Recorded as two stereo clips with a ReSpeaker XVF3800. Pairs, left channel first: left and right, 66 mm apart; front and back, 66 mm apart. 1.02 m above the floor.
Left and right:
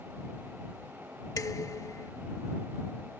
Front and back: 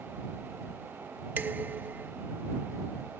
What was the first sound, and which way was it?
Dishes clattering, 120° left.